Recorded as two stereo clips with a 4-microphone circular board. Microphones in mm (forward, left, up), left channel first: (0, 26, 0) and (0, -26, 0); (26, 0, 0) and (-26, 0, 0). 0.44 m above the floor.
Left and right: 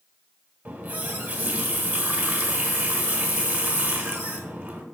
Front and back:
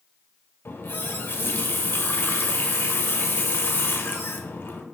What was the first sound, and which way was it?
A running tap, 40° right.